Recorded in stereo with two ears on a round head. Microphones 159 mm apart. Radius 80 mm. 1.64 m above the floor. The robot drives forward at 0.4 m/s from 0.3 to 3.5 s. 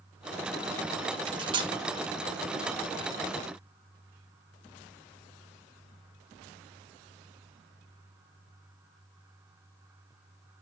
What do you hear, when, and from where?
1.3 s cutlery clinking: 30° right (ahead or behind), 0.9 m; by 1.7 s 25° right (ahead or behind), 0.9 m